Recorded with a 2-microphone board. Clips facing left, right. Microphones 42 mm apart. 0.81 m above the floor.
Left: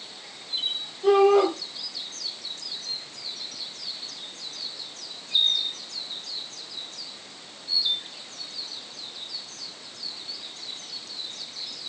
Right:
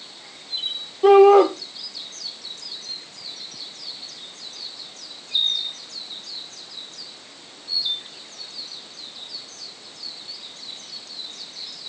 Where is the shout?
70° right (ahead or behind), 3.5 m.